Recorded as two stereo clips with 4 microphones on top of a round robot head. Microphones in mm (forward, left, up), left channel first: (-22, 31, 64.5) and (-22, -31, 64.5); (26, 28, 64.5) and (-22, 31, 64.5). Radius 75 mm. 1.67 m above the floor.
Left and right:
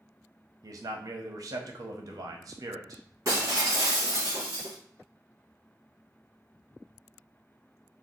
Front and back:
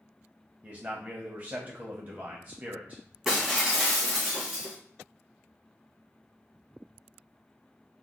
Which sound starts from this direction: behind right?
A man speaking, at 0.6 s.